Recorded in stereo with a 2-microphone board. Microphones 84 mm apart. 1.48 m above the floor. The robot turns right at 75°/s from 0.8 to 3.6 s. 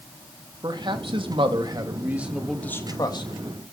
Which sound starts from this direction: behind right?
A man speaking, at 0.6 s.